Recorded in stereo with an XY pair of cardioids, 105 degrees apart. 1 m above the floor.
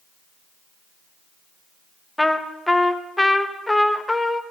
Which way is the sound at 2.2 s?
10° left.